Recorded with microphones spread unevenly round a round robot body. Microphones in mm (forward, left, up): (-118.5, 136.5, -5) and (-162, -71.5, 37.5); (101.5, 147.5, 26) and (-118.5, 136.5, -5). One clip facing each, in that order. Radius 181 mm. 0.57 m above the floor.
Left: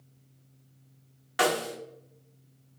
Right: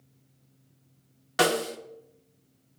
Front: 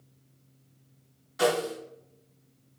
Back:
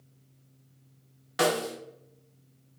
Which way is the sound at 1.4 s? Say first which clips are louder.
Right 3 dB, front 1 dB; 155° right.